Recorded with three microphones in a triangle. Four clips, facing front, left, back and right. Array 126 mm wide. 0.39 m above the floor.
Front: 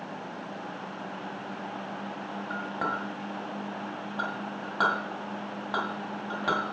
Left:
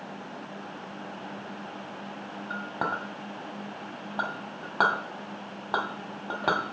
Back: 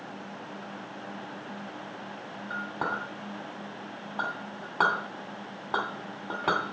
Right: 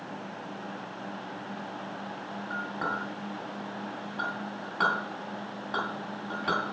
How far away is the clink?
About 1.9 m.